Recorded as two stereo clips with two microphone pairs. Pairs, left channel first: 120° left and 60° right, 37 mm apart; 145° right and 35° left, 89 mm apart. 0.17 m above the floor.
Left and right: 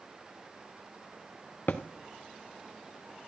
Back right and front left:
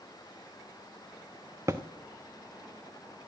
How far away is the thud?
About 1.0 m.